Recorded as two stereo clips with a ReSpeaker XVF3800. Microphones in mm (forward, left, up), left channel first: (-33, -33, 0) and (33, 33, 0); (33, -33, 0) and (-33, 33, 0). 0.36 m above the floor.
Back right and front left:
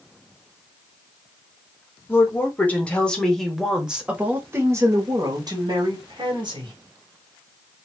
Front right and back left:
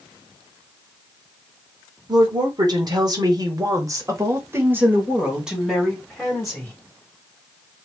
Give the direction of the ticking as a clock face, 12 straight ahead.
I don't hear ticking.